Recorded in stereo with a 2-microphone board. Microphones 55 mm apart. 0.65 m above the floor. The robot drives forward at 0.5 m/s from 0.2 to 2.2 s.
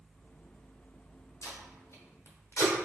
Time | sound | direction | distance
1.4 | tape being pulled | 75° left (ahead or behind) | 0.8 m